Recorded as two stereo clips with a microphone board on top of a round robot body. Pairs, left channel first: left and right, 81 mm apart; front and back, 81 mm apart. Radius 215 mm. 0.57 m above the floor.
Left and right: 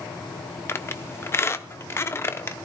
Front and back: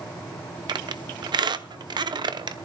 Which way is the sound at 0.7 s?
150° left.